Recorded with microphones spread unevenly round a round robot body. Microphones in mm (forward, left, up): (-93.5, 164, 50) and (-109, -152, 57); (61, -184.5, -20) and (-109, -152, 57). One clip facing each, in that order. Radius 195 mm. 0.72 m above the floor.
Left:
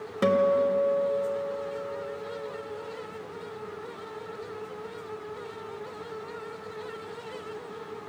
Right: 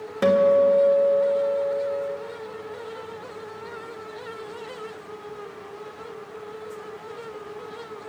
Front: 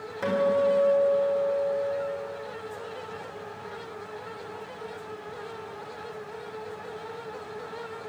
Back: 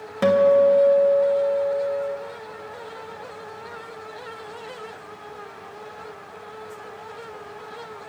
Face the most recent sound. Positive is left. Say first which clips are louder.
# right 5 dB, back 8 dB
turn(degrees=170)